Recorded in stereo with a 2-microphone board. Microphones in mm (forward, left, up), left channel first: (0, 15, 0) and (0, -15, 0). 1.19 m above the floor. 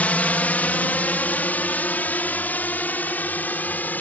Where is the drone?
65° left (ahead or behind); by 4.0 s 80° left.